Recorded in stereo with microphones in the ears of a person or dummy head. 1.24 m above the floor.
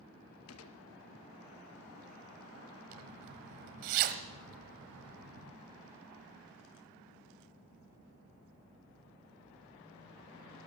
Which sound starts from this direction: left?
A gunshot, at 0.5 s.